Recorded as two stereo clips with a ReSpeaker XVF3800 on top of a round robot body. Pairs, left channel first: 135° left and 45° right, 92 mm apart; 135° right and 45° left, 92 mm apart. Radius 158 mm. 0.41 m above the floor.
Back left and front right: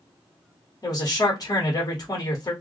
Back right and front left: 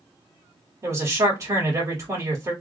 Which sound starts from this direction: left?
A man speaking, at 0.8 s.